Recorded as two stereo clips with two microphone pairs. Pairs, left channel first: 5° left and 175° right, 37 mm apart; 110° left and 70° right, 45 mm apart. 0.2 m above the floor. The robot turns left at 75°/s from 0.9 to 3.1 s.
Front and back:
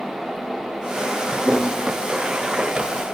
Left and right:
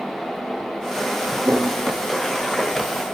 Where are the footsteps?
110° right, 0.7 m; by 2.9 s 125° right, 1.0 m.